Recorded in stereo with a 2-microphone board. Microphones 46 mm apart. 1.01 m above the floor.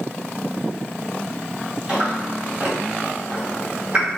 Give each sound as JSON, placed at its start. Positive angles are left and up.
{"t": 1.9, "sound": "chewing", "side_deg": -20, "distance_m": 1.2}